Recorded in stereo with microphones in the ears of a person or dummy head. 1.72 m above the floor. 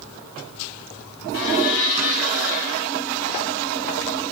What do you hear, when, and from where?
1.3 s a blender: 75° left (ahead or behind), 4 m